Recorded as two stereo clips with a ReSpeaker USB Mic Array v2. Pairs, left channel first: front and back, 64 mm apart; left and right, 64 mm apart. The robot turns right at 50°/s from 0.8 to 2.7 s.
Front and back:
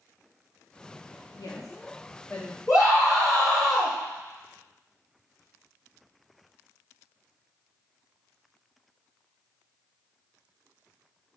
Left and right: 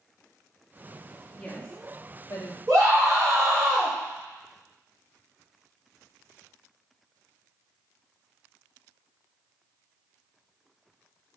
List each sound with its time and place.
1.3 s a woman speaking: 10° left, 0.7 m; by 2.6 s 75° left, 0.7 m
2.7 s a scream: 45° right, 1.9 m